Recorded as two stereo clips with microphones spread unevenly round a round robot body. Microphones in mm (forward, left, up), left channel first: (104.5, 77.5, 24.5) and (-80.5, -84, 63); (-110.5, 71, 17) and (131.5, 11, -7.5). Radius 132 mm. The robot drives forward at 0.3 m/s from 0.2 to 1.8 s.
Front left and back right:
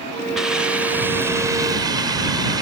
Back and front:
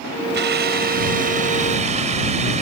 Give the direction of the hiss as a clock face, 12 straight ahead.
1 o'clock.